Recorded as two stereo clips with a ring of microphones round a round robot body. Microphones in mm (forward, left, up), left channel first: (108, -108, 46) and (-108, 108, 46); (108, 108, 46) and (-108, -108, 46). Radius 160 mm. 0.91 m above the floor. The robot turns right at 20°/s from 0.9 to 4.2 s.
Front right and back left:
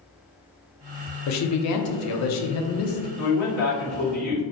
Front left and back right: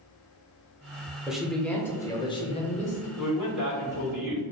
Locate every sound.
1.3 s a man speaking: 50° right, 0.5 m; by 3.1 s 10° right, 0.5 m
3.2 s a man speaking: 150° right, 1.6 m; by 4.4 s 130° right, 1.6 m